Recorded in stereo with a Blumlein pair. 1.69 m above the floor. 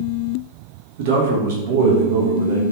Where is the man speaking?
55° right, 0.6 m.